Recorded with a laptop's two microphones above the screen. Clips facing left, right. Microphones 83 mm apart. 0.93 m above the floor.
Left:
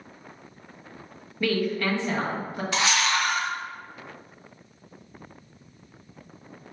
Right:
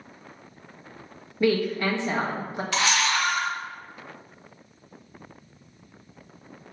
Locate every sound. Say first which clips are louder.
1.4 s a woman speaking: right 2 dB; 20° right (ahead or behind), 0.9 m
2.7 s a camera shutter: even; 20° left (ahead or behind), 1.4 m